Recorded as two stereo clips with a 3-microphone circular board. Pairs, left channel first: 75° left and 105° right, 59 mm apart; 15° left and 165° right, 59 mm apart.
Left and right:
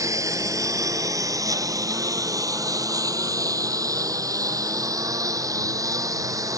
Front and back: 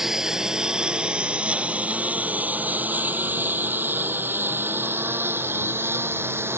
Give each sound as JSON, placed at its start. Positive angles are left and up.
{"t": 0.0, "sound": "a lawn mower", "azimuth_deg": -80}